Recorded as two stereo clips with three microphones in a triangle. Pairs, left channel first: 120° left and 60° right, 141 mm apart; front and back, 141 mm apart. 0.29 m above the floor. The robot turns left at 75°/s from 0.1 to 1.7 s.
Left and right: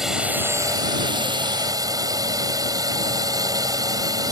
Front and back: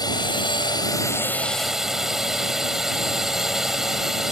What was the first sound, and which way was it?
A drone, 25° left.